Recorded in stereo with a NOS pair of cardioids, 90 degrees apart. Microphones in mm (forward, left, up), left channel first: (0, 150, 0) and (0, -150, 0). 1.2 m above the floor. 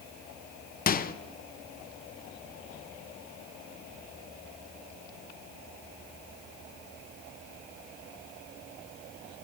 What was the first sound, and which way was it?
A microwave, 30° left.